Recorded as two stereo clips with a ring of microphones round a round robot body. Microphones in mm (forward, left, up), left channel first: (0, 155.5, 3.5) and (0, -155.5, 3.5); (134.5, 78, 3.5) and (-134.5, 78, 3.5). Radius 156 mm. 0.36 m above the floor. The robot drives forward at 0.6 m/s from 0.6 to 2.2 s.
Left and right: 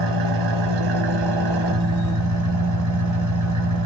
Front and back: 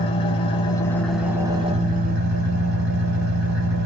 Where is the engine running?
75° right, 1.1 m; by 3.9 s 120° right, 1.2 m.